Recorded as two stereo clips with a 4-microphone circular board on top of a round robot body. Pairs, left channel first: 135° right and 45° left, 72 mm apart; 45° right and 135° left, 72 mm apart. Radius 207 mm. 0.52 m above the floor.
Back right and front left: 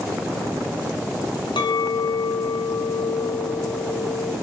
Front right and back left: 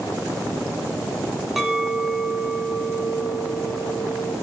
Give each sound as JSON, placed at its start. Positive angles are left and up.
{"t": 1.6, "sound": "a clink", "azimuth_deg": -140, "distance_m": 4.0}